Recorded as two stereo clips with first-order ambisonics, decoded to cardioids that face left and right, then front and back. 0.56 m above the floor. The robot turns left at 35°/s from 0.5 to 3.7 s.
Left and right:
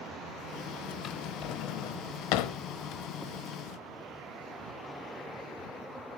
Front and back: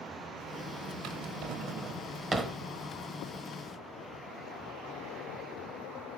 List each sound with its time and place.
1.0 s a drawer: 150° left, 1.0 m; by 2.6 s 95° left, 1.0 m